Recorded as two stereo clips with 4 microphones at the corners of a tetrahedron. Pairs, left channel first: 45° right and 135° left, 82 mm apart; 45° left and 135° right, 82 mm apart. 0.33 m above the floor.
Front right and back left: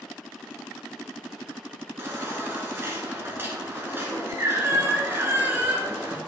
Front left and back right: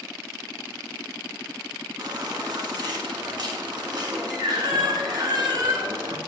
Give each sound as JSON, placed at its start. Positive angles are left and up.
{"t": 2.0, "sound": "a baby crying", "azimuth_deg": -165, "distance_m": 1.4}